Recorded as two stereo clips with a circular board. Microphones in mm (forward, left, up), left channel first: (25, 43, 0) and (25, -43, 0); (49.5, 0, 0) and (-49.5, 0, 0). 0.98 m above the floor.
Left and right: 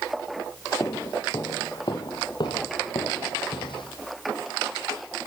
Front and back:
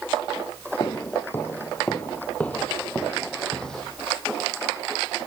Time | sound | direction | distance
0.8 | footsteps | 50° left | 1.5 m